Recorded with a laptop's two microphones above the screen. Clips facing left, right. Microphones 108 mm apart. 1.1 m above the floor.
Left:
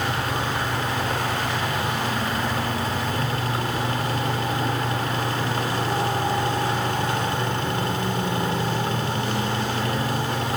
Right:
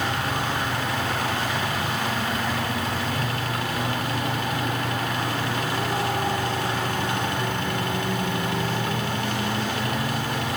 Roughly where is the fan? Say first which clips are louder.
Left 1 dB; left.